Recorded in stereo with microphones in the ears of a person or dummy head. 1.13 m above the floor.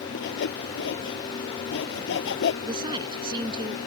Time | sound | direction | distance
0.1 | sawing | 65° left (ahead or behind) | ?
2.6 | a woman speaking | 25° right (ahead or behind) | ?